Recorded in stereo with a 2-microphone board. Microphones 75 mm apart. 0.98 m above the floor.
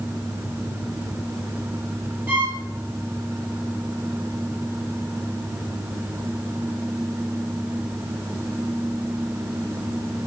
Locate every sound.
2.3 s a violin: 25° right (ahead or behind), 4.5 m